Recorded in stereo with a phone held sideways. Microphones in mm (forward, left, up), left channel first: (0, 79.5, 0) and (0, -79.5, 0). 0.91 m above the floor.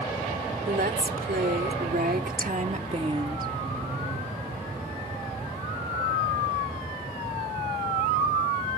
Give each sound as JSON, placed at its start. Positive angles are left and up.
{"t": 0.7, "sound": "a woman speaking", "side_deg": -80}